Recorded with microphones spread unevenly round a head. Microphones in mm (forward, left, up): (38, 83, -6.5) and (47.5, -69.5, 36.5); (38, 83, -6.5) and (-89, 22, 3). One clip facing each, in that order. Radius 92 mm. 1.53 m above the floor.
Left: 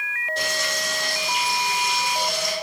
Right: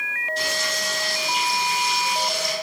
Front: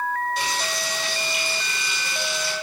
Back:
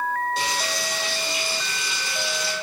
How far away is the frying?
About 2 m.